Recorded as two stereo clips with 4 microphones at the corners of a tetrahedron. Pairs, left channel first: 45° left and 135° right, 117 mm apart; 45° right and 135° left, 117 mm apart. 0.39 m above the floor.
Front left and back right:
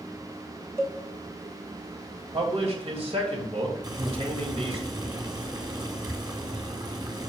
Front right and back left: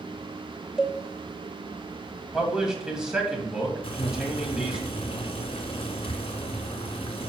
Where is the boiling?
80° right, 1.6 m.